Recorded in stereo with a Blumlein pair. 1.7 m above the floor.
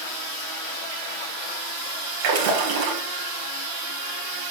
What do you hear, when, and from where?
2.2 s a splash: 50° right, 1.6 m